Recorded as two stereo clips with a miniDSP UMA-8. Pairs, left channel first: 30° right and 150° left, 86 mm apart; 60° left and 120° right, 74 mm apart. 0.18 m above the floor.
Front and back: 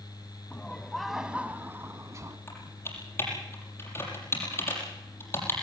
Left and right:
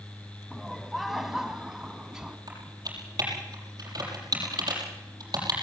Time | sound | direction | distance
0.5 | laughter | 25° right | 1.1 m
2.5 | typing on a keyboard | 90° right | 6.5 m